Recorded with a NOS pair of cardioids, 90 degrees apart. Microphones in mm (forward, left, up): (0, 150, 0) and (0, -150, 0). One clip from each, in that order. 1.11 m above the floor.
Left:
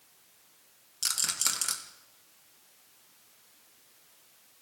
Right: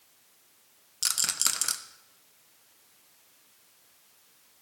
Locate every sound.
1.0 s a rattle: 20° right, 1.0 m